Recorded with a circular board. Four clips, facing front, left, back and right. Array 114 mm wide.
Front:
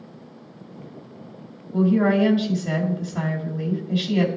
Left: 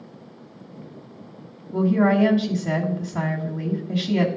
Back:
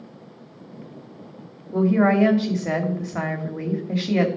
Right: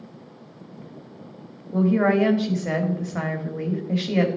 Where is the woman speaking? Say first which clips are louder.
Even, back 1 dB; 150° right, 1.5 m.